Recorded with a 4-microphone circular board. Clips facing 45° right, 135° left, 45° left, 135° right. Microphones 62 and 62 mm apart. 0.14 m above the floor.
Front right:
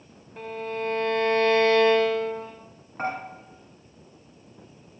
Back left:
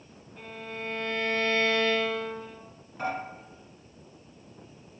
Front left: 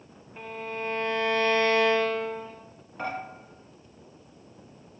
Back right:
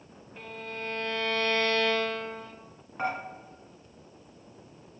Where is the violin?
25° right, 0.6 m.